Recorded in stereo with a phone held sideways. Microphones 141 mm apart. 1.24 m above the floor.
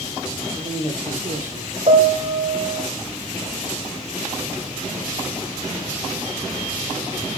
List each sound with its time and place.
0.4 s a woman speaking: 20° right (ahead or behind), 6.5 m
1.9 s a piano: 60° right (ahead or behind), 1.6 m